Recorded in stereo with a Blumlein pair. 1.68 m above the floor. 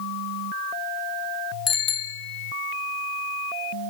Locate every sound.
1.7 s a bicycle bell: 20° left, 2.5 m